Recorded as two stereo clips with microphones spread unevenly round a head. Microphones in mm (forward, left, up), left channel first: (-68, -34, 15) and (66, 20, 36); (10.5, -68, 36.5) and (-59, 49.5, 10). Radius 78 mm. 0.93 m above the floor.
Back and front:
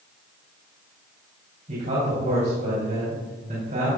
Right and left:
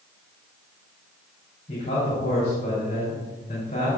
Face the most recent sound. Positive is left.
turn(degrees=-10)